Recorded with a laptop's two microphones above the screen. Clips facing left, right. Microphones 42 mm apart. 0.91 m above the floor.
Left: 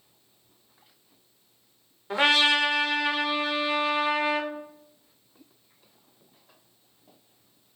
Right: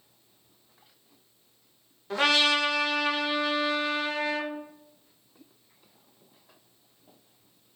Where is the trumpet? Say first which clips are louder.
Left 2 dB; 20° left (ahead or behind), 0.7 m.